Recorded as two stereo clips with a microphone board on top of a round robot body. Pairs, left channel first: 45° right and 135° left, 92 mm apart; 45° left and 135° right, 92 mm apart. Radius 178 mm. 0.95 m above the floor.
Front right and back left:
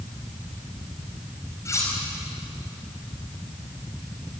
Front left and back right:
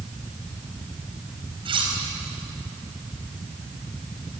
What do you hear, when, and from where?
1.6 s cutlery clinking: 105° right, 4.5 m